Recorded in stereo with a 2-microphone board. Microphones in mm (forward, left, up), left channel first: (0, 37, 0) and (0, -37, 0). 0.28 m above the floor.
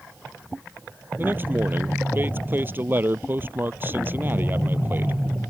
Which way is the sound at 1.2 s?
30° right (ahead or behind).